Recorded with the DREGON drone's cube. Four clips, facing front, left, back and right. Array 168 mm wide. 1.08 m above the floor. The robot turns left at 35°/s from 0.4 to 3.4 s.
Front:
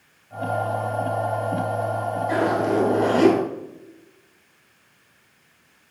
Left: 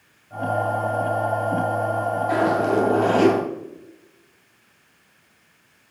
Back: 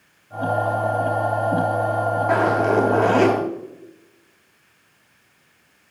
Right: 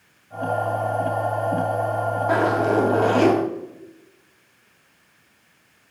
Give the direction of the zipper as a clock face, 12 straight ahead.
5 o'clock.